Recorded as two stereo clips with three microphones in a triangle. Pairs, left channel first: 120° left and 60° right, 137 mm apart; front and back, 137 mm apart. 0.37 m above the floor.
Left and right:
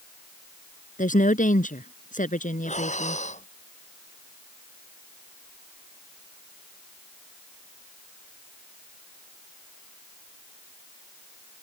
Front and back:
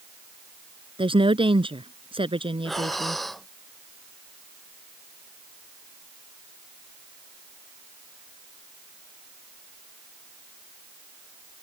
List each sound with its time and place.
1.0 s a woman speaking: 130° left
2.6 s breathing: 90° left